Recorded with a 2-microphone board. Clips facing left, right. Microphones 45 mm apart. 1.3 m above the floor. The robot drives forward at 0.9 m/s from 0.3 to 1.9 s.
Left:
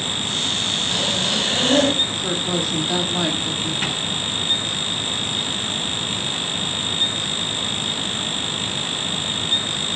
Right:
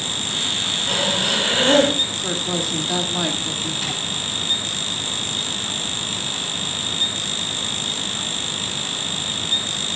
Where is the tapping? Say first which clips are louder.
Left 2 dB; 35° left (ahead or behind), 6 m.